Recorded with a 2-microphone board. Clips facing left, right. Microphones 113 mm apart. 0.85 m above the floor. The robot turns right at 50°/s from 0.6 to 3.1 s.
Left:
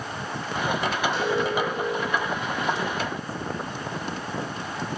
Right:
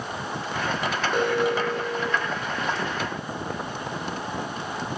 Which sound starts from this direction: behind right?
An alarm, at 1.1 s.